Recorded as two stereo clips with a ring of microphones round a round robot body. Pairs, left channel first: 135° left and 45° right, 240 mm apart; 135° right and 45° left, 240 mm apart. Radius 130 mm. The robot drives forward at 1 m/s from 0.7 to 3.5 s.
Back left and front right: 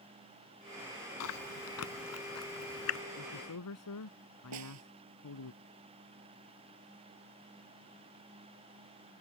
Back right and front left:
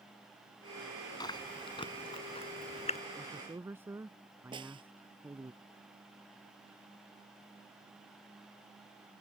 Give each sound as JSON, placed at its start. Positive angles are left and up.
{"t": 1.2, "sound": "chewing", "azimuth_deg": 150}
{"t": 3.2, "sound": "a man speaking", "azimuth_deg": 125}
{"t": 4.5, "sound": "a snare drum", "azimuth_deg": -25}